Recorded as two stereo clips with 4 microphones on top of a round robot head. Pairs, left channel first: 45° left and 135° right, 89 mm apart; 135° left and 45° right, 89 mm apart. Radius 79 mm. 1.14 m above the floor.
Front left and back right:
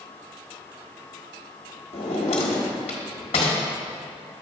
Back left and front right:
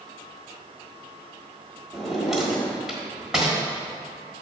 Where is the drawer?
40° left, 1.3 m.